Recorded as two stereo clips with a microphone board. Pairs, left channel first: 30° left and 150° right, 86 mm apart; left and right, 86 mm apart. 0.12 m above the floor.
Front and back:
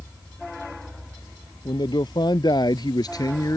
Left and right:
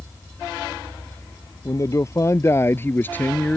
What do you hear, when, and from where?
1.6 s a man speaking: 45° left; by 3.6 s 20° left